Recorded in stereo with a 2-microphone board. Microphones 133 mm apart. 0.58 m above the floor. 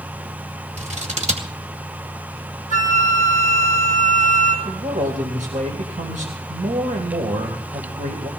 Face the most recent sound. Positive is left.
turn(degrees=-70)  # may be behind; listen again after turning